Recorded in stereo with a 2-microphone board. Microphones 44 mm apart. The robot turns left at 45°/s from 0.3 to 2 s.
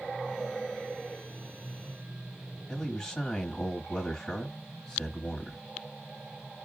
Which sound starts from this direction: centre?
A man speaking, at 2.7 s.